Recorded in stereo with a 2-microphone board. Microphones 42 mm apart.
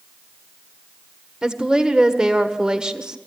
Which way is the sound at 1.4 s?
15° right (ahead or behind).